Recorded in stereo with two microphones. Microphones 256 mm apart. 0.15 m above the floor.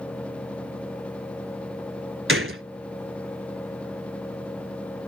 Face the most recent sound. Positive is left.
turn(degrees=-60)  # may be behind; listen again after turning